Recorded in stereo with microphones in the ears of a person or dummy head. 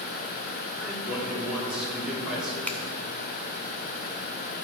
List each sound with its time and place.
0.8 s a man speaking: centre (ahead or behind), 3 m
2.7 s a finger snap: 5° left (ahead or behind), 0.5 m